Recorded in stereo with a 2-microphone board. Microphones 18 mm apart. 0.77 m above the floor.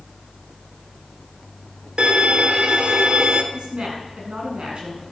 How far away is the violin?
About 2 m.